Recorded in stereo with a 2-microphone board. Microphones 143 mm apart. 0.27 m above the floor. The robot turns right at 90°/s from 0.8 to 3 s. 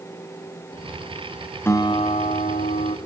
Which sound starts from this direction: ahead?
A guitar, at 1.6 s.